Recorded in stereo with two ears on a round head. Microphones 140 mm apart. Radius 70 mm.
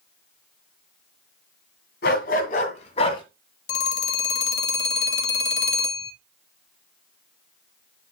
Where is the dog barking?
65° left (ahead or behind), 2 m; by 3.2 s 30° left (ahead or behind), 2.0 m.